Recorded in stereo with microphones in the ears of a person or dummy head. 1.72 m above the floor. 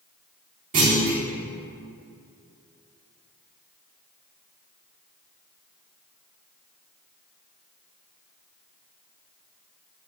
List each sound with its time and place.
0.7 s a clunk: 45° right (ahead or behind), 1.3 m